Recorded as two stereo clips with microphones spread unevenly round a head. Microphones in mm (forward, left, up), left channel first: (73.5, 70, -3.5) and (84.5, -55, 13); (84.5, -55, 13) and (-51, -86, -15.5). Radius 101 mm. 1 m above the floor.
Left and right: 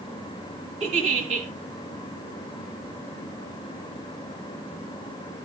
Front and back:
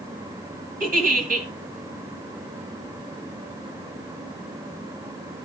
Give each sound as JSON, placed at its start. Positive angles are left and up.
{"t": 0.8, "sound": "a giggle", "azimuth_deg": -140, "distance_m": 2.0}